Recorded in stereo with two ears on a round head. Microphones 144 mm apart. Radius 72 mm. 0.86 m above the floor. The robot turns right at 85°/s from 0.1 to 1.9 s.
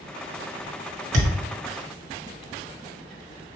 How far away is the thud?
About 0.9 m.